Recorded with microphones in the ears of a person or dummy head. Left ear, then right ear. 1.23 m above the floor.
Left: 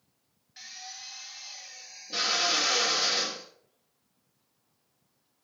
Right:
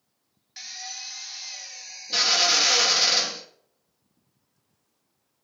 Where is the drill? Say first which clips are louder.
Right 6 dB; 35° right (ahead or behind), 1.4 m.